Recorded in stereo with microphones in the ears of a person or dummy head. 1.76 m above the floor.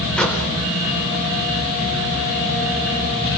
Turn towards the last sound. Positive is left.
turn(degrees=15)  # may be behind; listen again after turning